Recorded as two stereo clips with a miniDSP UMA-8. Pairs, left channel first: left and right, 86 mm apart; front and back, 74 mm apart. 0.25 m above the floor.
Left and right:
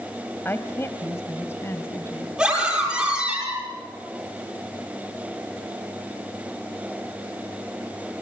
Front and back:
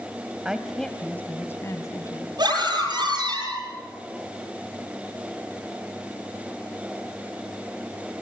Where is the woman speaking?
115° left, 1.2 m; by 2.3 s 30° left, 2.5 m.